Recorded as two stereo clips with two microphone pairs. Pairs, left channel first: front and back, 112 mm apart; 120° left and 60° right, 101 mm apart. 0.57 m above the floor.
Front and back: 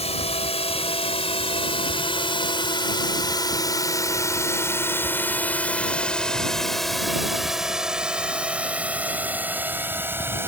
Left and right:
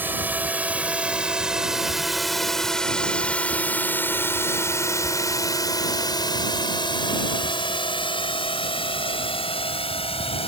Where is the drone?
10° left; by 10.5 s 110° left.